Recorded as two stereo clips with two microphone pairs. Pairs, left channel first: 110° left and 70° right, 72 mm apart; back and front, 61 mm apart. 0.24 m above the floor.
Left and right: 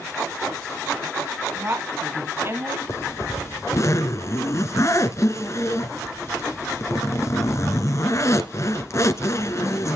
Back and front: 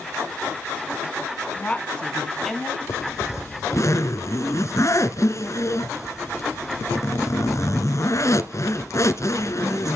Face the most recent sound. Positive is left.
turn(degrees=155)